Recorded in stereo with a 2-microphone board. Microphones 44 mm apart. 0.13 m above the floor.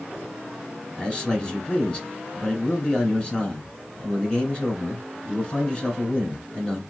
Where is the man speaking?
25° left (ahead or behind), 1.8 m.